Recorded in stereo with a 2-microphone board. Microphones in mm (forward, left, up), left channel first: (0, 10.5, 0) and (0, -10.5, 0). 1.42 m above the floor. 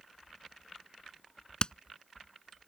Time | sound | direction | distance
1.6 | hammering | 35° left (ahead or behind) | ?